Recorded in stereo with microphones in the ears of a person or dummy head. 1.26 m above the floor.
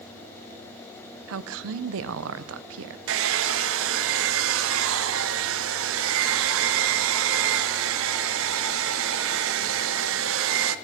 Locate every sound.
1.3 s a woman speaking: 70° right (ahead or behind), 0.6 m
3.1 s a hair dryer: 70° right (ahead or behind), 0.8 m